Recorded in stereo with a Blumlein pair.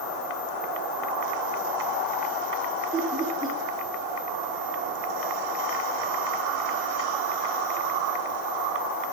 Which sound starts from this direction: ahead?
Laughter, at 2.9 s.